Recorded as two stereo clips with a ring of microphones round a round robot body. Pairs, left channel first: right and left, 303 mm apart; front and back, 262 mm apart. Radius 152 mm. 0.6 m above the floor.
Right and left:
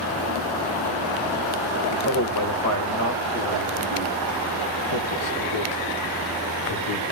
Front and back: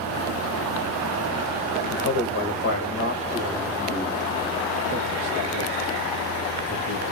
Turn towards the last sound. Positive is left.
turn(degrees=-50)